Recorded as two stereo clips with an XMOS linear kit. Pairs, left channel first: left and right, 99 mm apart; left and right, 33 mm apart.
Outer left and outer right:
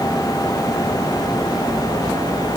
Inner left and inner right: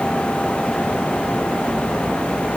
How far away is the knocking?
I don't hear knocking.